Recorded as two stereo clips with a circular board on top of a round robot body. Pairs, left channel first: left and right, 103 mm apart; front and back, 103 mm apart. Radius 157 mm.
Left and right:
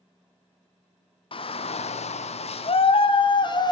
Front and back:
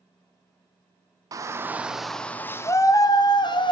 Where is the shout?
125° left, 0.9 m; by 3.7 s 40° left, 1.4 m.